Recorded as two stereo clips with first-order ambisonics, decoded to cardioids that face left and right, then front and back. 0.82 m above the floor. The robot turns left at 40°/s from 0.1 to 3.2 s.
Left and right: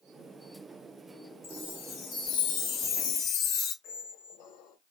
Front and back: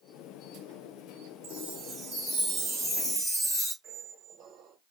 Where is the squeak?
120° left, 1.0 m.